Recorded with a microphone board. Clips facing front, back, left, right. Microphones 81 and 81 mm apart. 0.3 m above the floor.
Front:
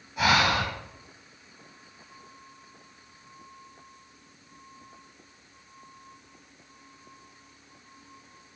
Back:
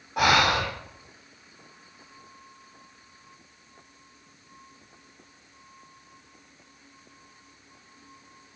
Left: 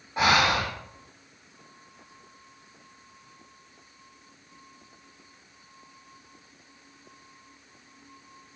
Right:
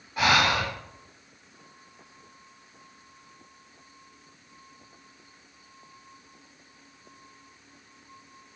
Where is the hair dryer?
I don't hear a hair dryer.